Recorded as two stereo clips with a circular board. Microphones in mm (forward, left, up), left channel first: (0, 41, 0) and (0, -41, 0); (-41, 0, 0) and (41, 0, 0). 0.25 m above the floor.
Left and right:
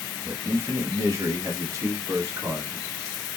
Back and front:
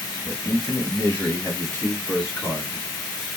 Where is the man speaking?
105° right, 1.1 m; by 2.8 s 135° right, 2.5 m.